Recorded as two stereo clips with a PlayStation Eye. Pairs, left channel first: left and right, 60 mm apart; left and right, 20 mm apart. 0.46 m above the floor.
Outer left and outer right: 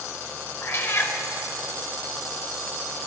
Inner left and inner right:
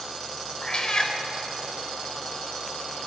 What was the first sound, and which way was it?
A cat meowing, 45° left (ahead or behind).